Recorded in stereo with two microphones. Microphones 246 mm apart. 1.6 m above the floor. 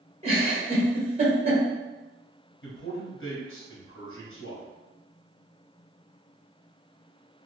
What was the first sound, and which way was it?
A giggle, 25° right (ahead or behind).